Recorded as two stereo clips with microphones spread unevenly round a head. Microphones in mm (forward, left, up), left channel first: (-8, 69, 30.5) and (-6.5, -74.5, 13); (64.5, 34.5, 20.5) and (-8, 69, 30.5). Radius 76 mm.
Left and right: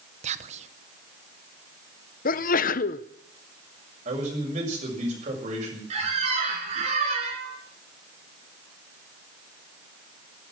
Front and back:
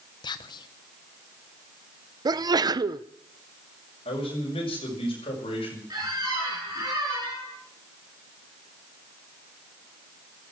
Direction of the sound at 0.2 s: 55° right.